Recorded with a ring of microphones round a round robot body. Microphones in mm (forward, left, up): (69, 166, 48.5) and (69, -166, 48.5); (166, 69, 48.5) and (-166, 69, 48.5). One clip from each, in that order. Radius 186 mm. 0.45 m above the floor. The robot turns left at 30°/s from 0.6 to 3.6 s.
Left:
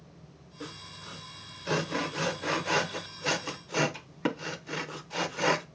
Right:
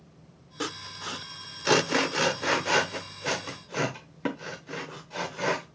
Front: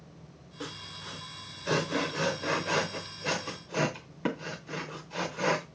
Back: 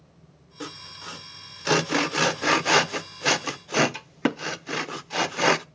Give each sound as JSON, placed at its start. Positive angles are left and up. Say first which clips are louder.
{"t": 0.6, "sound": "sawing", "louder": "right 8 dB, back 3 dB", "azimuth_deg": -110, "distance_m": 0.8}